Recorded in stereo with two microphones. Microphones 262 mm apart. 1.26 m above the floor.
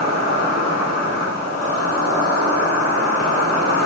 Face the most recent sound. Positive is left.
turn(degrees=65)  # may be behind; listen again after turning